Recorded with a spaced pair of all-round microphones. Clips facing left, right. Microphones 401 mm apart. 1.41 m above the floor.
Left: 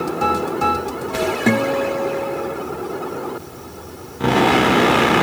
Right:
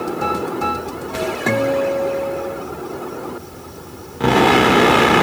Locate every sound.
1.5 s a guitar: 40° left (ahead or behind), 2.5 m